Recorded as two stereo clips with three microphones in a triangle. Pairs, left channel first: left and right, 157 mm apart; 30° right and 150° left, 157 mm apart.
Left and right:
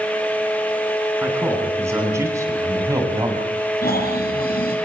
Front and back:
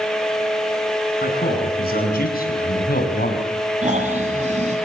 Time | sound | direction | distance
1.2 | a man speaking | 15° right | 8 m
3.8 | snoring | 110° left | 8.5 m